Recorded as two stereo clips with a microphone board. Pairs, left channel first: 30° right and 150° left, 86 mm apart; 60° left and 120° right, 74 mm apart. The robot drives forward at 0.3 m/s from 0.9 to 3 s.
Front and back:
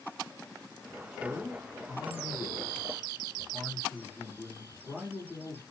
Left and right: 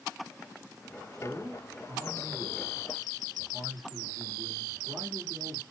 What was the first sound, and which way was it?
A man speaking, 120° right.